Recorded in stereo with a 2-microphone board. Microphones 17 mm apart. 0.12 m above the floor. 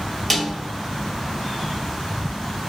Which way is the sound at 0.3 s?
10° left (ahead or behind).